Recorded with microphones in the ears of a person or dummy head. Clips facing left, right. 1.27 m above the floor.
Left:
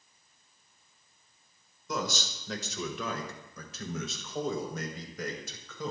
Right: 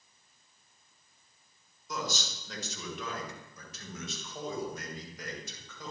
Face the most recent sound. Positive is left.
turn(degrees=80)